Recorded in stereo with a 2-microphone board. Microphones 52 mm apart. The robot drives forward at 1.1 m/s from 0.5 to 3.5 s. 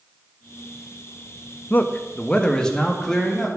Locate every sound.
1.7 s a man speaking: 35° left (ahead or behind), 0.7 m; by 3.5 s 10° left (ahead or behind), 2.5 m